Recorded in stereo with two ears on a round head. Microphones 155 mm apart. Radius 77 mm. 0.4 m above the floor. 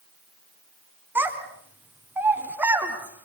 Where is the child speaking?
10° right (ahead or behind), 3 m.